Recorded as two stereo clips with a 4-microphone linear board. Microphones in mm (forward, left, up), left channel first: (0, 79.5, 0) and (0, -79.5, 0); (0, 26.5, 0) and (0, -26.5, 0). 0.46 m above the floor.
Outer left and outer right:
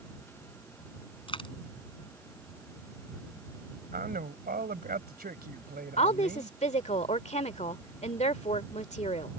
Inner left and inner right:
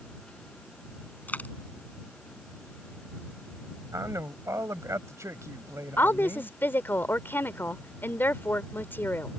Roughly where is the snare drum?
I don't hear a snare drum.